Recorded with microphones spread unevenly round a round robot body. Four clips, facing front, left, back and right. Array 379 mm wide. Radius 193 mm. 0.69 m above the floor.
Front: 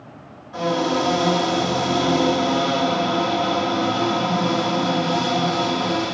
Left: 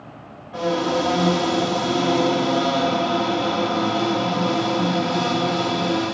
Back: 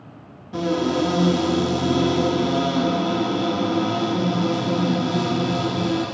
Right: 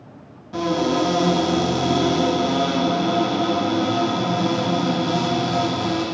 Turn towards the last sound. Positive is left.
turn(degrees=-140)